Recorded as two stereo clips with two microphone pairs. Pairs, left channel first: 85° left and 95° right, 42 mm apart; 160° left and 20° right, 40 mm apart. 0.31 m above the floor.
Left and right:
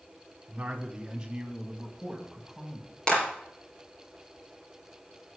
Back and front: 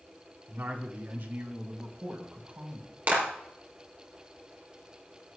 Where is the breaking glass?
I don't hear breaking glass.